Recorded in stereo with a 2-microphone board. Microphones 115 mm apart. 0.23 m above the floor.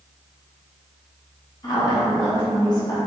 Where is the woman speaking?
40° left (ahead or behind), 1.9 m.